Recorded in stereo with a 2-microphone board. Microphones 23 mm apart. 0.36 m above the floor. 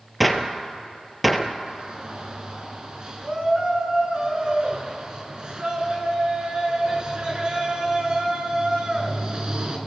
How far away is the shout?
About 4 m.